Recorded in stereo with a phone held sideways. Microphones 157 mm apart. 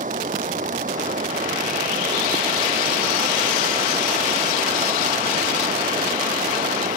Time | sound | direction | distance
0.0 | running water | 55° right (ahead or behind) | ?